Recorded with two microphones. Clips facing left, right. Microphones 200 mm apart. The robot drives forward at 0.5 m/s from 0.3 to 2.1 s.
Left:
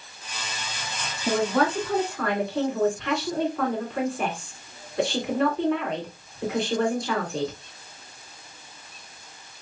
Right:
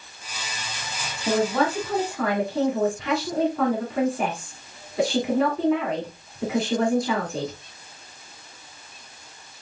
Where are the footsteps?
I don't hear footsteps.